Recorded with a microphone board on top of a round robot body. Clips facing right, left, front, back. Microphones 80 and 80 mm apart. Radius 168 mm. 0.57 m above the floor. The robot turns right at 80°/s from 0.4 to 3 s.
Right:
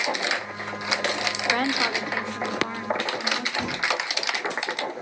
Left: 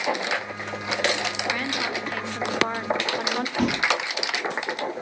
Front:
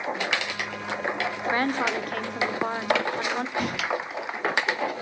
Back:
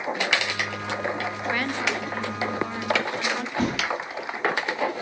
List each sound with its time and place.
1.5 s a woman speaking: 60° right, 2 m; by 3.5 s 60° left, 2 m
3.6 s a thud: 125° left, 3 m